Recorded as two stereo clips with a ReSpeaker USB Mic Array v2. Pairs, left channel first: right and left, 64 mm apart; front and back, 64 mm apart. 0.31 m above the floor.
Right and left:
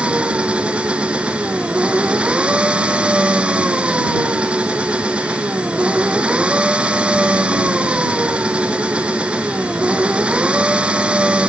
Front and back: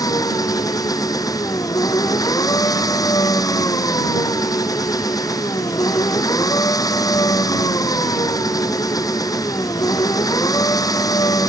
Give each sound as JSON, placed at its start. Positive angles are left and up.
{"t": 0.0, "sound": "an engine running", "azimuth_deg": 15}